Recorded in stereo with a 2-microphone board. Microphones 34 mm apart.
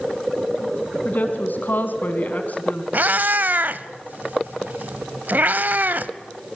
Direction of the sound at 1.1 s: 60° left (ahead or behind).